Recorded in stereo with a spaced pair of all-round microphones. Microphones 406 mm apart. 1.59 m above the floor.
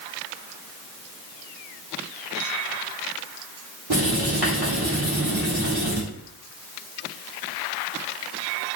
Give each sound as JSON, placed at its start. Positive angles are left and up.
{"t": 3.9, "sound": "writing", "side_deg": -65, "distance_m": 1.4}